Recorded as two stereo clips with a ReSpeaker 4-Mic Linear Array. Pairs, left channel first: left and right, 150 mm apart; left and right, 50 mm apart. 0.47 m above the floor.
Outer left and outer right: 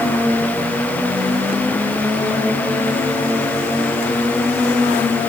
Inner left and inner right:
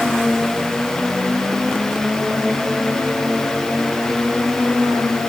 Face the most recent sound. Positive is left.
No sound to turn to.